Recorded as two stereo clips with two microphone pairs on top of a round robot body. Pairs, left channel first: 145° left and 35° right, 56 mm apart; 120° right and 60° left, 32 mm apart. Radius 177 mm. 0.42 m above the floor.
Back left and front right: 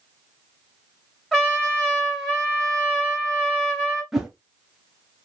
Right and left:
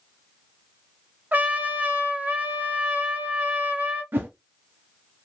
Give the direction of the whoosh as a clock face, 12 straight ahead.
10 o'clock.